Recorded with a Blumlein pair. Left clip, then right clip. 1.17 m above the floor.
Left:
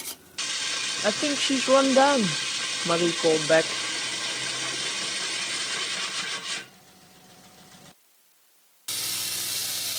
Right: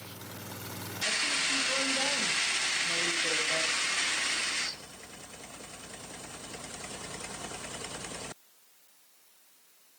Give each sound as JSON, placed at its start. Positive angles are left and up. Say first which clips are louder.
{"t": 1.0, "sound": "a woman speaking", "louder": "left 3 dB", "azimuth_deg": 50, "distance_m": 0.6}